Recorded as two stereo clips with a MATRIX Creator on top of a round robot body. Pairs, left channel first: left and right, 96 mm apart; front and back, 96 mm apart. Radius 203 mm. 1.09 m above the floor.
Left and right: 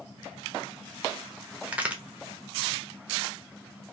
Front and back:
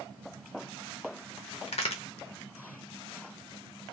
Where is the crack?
10° right, 0.9 m.